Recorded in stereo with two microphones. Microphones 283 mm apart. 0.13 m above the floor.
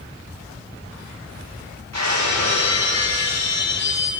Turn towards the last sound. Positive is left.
turn(degrees=-65)  # may be behind; listen again after turning